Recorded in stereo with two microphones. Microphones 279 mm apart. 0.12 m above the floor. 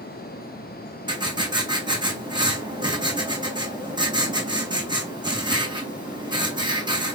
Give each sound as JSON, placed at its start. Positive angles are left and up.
{"t": 1.1, "sound": "writing", "side_deg": -15, "distance_m": 1.7}